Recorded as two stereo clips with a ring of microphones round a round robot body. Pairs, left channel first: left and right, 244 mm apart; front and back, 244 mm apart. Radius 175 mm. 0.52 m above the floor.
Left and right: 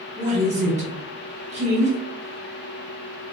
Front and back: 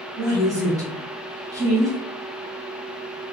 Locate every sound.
0.2 s a woman speaking: 115° right, 0.9 m